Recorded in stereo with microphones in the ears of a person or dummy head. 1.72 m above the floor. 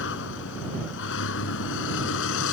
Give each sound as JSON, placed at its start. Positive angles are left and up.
{"t": 0.0, "sound": "a vehicle", "side_deg": 75}